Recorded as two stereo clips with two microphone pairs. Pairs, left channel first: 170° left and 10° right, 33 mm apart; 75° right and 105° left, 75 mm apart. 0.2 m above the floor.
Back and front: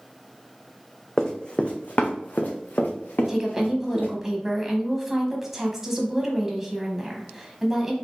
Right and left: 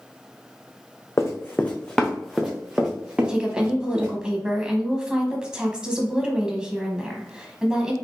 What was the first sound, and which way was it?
Running footsteps, 120° right.